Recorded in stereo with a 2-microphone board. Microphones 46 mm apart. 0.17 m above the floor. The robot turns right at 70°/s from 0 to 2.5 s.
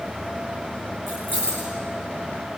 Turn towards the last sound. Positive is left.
turn(degrees=40)